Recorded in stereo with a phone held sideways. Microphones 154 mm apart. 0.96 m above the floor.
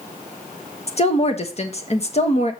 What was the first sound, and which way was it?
A woman speaking, 45° left (ahead or behind).